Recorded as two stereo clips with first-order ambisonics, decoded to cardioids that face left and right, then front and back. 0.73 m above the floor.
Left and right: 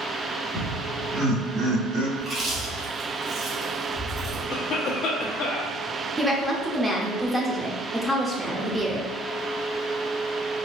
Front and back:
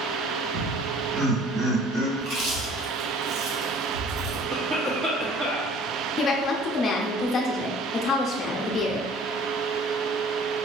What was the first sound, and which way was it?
Laughter, straight behind.